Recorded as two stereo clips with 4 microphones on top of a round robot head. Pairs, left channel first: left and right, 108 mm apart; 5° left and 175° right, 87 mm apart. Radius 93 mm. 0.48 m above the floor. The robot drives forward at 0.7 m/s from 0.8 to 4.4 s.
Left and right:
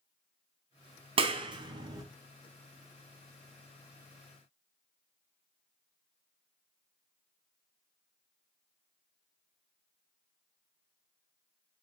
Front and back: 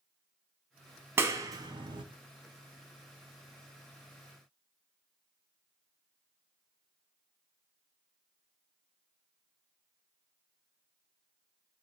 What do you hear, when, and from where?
1.2 s a clap: 115° right, 0.8 m; by 2.0 s 145° right, 1.1 m